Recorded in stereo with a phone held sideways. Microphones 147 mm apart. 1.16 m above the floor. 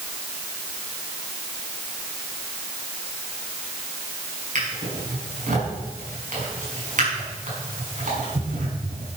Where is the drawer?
55° right (ahead or behind), 6.5 m.